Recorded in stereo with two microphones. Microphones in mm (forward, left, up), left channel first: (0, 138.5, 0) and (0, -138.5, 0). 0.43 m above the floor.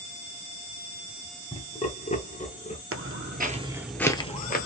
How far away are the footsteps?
About 0.7 m.